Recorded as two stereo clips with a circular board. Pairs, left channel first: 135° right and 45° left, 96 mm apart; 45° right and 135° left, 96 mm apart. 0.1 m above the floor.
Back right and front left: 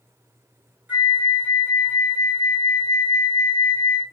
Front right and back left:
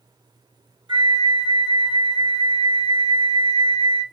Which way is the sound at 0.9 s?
115° left.